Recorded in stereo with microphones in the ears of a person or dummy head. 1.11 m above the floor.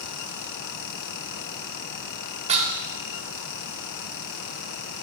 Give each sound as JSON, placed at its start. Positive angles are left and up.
{"t": 2.5, "sound": "dishes clattering", "side_deg": -30, "distance_m": 1.2}